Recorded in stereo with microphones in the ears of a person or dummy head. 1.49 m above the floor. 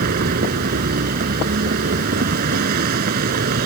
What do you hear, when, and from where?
0.0 s a vehicle: 55° right (ahead or behind)